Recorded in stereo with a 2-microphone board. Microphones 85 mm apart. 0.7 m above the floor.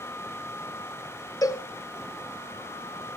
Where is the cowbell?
40° left (ahead or behind), 1.6 m.